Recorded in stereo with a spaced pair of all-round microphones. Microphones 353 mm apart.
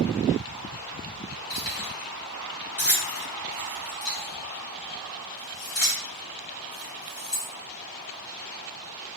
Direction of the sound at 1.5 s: 70° left (ahead or behind).